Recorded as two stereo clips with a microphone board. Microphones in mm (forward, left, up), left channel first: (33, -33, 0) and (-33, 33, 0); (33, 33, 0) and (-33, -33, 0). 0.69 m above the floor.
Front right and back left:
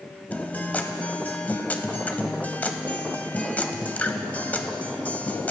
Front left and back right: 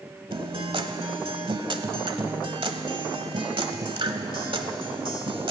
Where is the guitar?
115° right, 1.0 m.